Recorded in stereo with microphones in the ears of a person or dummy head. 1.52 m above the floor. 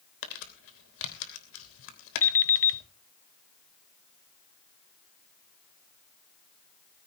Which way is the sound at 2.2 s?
15° left (ahead or behind).